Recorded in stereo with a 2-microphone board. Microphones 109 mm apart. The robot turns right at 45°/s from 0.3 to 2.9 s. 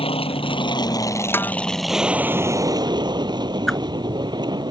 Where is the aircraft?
110° left; by 4.7 s 130° right.